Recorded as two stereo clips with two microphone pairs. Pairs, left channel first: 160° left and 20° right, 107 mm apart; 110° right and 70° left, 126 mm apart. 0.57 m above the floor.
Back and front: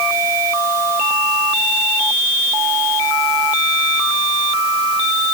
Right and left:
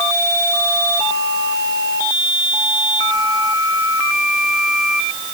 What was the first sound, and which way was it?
Only background noise.